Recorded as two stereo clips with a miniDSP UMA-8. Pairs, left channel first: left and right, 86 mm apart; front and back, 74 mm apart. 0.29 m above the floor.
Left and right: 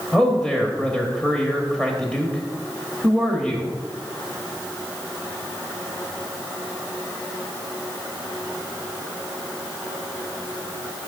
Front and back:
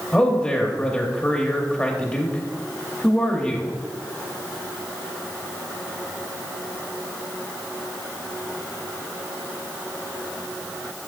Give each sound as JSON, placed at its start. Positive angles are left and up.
{"t": 0.1, "sound": "a man speaking", "azimuth_deg": 30, "distance_m": 0.9}